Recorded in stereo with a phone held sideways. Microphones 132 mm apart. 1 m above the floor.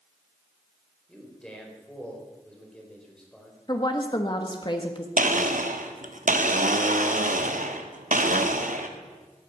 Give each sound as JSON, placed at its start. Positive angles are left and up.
{"t": 1.1, "sound": "a man speaking", "side_deg": 5, "distance_m": 4.0}
{"t": 3.7, "sound": "a woman speaking", "side_deg": 35, "distance_m": 1.4}
{"t": 5.2, "sound": "a blender", "side_deg": -80, "distance_m": 1.1}